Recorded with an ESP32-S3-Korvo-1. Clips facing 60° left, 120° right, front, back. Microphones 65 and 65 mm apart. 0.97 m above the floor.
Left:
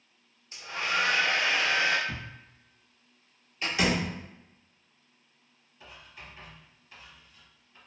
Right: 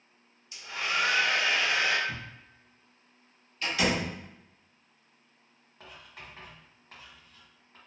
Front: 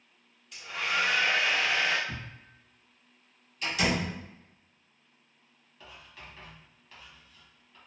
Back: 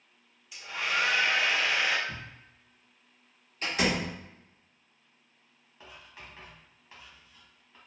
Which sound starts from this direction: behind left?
A door slam, at 3.6 s.